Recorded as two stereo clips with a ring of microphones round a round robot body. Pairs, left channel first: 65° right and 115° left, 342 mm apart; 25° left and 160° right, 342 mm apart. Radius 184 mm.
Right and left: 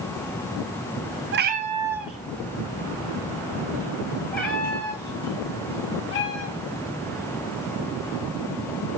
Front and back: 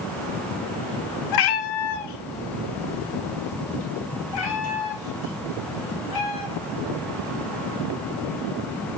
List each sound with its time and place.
1.3 s a cat meowing: 55° left, 0.7 m; by 7.3 s 10° right, 4 m